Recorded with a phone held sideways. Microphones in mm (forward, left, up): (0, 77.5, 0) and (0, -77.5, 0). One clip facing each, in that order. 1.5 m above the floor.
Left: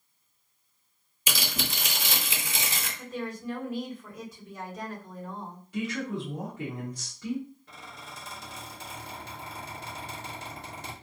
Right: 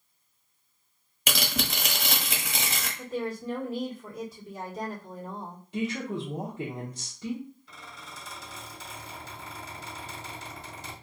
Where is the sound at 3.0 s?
30° right (ahead or behind), 1.5 m.